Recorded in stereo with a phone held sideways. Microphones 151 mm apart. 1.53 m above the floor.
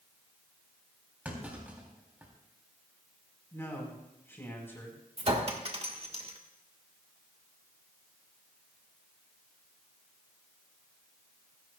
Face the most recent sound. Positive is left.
turn(degrees=-40)  # may be behind; listen again after turning